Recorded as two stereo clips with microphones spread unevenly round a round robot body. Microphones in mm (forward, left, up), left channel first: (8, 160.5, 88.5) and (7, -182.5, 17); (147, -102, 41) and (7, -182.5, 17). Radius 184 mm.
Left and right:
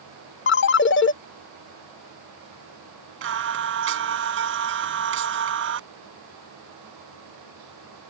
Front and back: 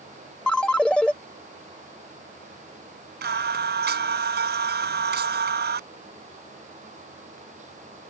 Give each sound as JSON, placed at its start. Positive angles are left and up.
{"t": 0.5, "sound": "a ringtone", "azimuth_deg": 125}
{"t": 3.2, "sound": "singing", "azimuth_deg": -145}